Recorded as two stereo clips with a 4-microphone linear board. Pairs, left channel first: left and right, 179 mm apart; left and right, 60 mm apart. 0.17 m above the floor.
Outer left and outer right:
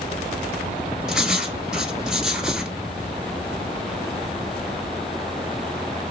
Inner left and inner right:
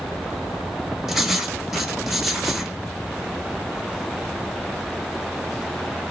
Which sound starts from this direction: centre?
Writing, at 1.1 s.